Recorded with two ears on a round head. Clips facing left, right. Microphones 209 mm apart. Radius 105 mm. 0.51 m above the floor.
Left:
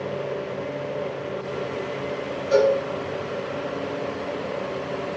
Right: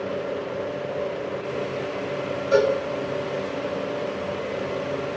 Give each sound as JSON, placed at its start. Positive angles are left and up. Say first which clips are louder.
{"t": 2.5, "sound": "a cowbell", "louder": "left 1 dB", "side_deg": 60, "distance_m": 2.5}